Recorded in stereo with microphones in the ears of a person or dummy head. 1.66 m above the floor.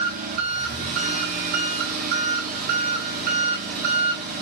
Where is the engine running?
45° right (ahead or behind), 1.8 m.